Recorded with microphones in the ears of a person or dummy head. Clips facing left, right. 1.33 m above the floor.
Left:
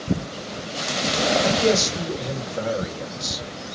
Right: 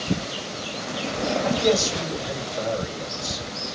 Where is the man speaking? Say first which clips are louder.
Left 1 dB; 50° left (ahead or behind), 1.4 m.